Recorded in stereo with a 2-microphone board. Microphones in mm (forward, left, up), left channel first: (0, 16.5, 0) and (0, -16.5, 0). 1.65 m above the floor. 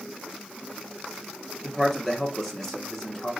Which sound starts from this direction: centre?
A man speaking, at 1.6 s.